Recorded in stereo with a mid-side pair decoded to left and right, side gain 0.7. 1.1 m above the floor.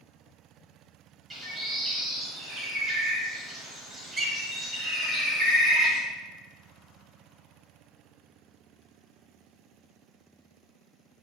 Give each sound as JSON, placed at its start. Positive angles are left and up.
{"t": 1.3, "sound": "a bird", "azimuth_deg": -25, "distance_m": 0.9}